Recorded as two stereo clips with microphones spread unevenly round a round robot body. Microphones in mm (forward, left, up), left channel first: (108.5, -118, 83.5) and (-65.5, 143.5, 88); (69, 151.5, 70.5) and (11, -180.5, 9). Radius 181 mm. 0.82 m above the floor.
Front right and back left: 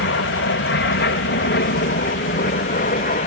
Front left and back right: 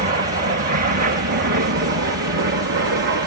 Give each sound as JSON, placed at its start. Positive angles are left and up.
{"t": 0.0, "sound": "an aircraft", "azimuth_deg": -70}